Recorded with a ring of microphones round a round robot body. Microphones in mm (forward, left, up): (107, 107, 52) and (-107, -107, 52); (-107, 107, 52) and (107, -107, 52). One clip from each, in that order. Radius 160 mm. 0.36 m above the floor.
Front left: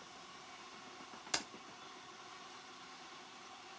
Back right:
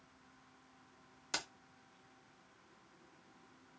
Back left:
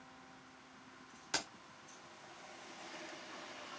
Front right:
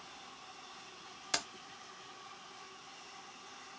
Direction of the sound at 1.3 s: 20° right.